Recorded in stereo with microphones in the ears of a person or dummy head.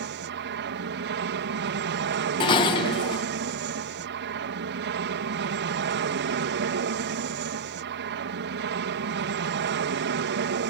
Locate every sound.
0.0 s an aircraft: 55° right (ahead or behind)
2.4 s dishes clattering: 25° left (ahead or behind)